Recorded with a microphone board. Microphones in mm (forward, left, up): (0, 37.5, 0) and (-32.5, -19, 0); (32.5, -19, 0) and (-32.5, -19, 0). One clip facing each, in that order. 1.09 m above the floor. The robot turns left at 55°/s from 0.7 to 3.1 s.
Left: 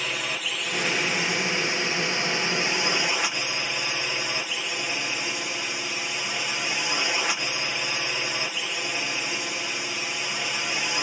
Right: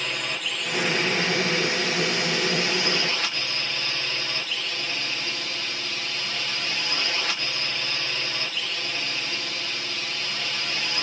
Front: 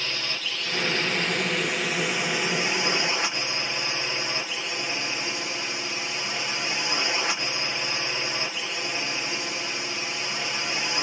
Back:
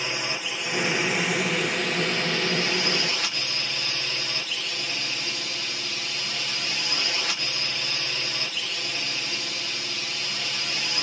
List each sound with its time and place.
0.0 s a drone: 140° left; by 11.0 s 10° left